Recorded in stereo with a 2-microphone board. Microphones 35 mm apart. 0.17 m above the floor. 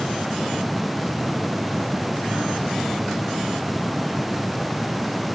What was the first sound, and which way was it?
Only background noise.